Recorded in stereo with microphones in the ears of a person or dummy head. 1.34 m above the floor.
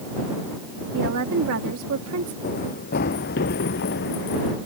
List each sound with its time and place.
0.9 s a woman speaking: 70° right (ahead or behind); by 2.3 s 75° right (ahead or behind)
2.4 s running footsteps: 45° left (ahead or behind); by 4.6 s 55° left (ahead or behind)